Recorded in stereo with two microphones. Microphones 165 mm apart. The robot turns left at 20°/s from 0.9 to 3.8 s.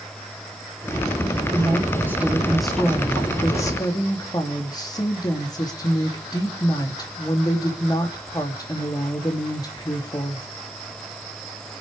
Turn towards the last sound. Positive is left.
turn(degrees=155)